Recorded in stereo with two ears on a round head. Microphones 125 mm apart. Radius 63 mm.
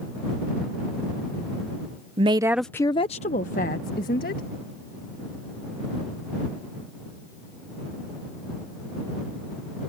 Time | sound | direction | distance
2.2 | a woman speaking | 40° right (ahead or behind) | ?